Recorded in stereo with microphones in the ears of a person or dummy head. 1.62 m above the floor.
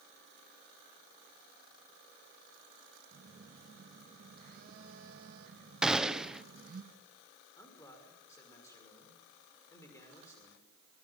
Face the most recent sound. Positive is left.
turn(degrees=10)  # may be behind; listen again after turning